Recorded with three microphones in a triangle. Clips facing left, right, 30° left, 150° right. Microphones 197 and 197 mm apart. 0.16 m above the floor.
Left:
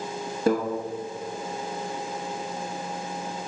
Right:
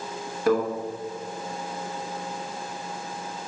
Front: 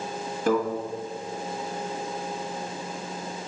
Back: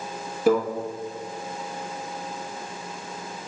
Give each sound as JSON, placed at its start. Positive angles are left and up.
{"t": 0.5, "sound": "a microwave", "azimuth_deg": 130, "distance_m": 1.0}